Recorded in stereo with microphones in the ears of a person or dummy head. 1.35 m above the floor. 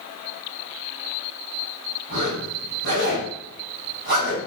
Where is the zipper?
55° right (ahead or behind), 1.3 m.